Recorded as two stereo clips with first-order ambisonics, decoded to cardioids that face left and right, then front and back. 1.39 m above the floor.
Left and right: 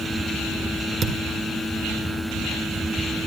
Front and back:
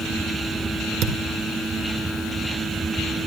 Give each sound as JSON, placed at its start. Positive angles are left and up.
{"t": 1.0, "sound": "a thud", "azimuth_deg": -145, "distance_m": 1.7}